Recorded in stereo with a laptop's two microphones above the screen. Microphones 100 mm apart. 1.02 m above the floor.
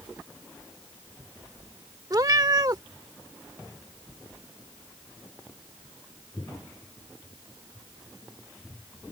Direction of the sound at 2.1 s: 40° right (ahead or behind).